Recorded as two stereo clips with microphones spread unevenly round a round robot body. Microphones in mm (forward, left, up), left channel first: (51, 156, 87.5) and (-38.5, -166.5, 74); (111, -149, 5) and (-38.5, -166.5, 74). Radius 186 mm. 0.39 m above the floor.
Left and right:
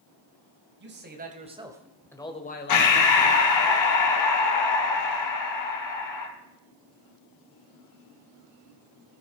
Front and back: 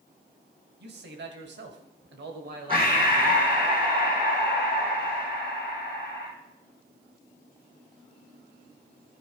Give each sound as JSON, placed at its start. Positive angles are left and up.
{"t": 0.8, "sound": "a man speaking", "azimuth_deg": -160, "distance_m": 2.5}
{"t": 2.7, "sound": "breathing", "azimuth_deg": 110, "distance_m": 2.0}